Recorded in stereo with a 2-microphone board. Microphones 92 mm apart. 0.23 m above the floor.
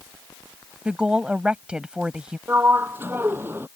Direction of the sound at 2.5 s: 25° right (ahead or behind).